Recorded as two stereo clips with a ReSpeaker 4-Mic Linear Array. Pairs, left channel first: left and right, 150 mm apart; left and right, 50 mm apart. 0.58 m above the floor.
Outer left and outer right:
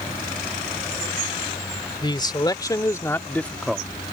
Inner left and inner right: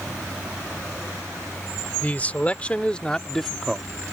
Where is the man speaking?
30° left (ahead or behind); by 3.9 s 5° right (ahead or behind).